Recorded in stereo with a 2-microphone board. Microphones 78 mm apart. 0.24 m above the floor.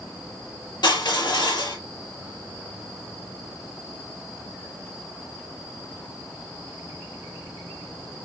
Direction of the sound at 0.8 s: 70° left (ahead or behind).